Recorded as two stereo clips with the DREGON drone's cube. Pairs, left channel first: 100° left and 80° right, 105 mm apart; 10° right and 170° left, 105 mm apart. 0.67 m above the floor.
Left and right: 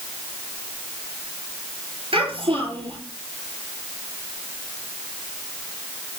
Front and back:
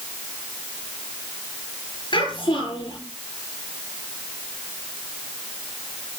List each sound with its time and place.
2.1 s a child speaking: 50° right, 7.5 m